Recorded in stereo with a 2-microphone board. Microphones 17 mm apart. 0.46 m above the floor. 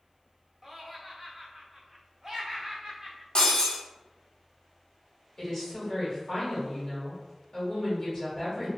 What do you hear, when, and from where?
0.6 s laughter: 25° right (ahead or behind), 0.8 m
3.4 s breaking glass: 55° left (ahead or behind), 1.3 m
5.4 s a woman speaking: 40° left (ahead or behind), 1.7 m